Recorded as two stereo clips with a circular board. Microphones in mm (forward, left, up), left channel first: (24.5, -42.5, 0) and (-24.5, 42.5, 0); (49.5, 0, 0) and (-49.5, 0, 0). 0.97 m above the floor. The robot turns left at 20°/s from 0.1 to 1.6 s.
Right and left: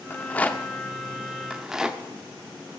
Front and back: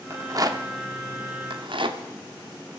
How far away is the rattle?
About 0.9 m.